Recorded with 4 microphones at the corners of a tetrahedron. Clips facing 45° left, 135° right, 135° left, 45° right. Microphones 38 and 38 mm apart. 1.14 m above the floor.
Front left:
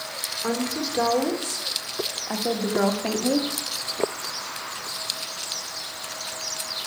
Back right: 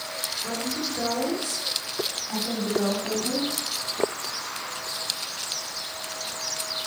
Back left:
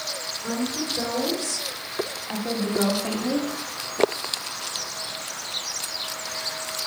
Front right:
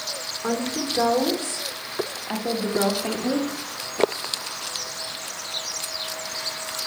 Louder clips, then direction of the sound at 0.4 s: Front left 5 dB, front right 2 dB; straight ahead.